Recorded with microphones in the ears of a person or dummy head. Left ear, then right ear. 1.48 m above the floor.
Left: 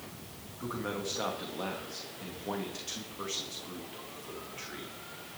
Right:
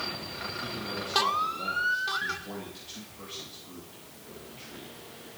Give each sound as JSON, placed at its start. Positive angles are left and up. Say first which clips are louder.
{"t": 0.6, "sound": "a man speaking", "louder": "right 2 dB", "side_deg": 40, "distance_m": 2.0}